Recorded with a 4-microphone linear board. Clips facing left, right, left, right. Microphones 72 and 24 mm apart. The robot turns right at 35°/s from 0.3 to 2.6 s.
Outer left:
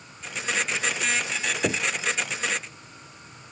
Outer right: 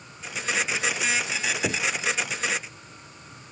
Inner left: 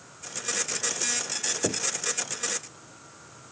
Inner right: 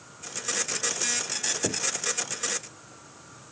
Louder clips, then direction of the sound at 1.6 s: Outer left 3 dB, inner left 2 dB; 15° left (ahead or behind).